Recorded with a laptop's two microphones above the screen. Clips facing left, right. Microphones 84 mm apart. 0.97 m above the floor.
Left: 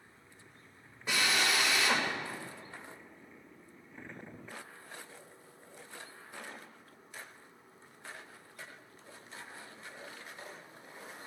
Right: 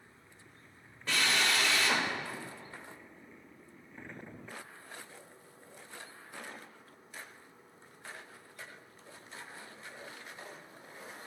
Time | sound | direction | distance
1.1 | a drill | 15° left (ahead or behind) | 2.5 m